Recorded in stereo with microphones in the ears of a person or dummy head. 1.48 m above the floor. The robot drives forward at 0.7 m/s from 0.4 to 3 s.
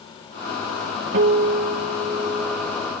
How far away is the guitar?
About 0.9 m.